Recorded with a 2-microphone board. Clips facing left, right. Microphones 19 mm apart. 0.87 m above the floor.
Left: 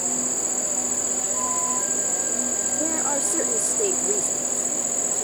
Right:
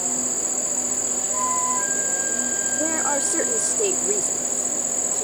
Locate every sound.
0.0 s an insect: 5° right (ahead or behind)
1.3 s a flute: 35° right (ahead or behind)
2.7 s a woman speaking: 25° right (ahead or behind)